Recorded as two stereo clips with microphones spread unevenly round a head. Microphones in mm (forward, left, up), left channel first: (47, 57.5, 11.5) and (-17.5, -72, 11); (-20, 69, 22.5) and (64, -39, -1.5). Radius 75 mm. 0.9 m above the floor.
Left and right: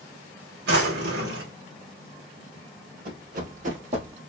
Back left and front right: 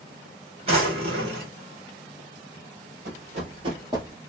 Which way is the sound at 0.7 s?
105° right.